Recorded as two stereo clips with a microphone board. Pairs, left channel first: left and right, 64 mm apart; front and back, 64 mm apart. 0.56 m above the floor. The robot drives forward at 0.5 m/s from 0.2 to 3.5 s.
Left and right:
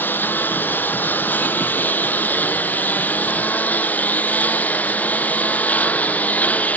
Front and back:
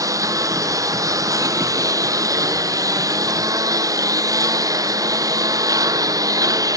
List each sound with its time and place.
0.0 s a lawn mower: 150° left; by 6.8 s 155° left